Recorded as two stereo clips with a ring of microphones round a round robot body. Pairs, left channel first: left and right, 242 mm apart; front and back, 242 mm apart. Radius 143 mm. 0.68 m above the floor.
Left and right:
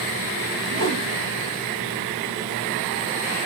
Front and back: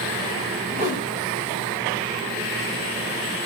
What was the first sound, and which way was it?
A whoosh, 55° right.